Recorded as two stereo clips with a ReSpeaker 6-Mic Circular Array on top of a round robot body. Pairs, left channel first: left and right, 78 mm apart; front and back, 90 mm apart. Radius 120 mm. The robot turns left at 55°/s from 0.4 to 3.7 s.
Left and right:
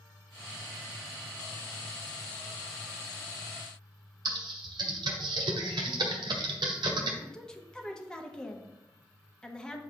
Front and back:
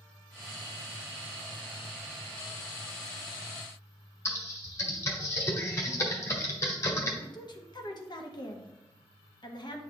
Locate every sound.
4.2 s typing on a keyboard: 60° right, 0.9 m
7.2 s a woman speaking: 10° left, 1.1 m